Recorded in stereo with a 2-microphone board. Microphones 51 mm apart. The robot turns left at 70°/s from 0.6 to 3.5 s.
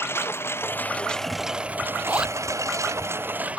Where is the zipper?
40° right (ahead or behind); by 2.4 s 10° right (ahead or behind).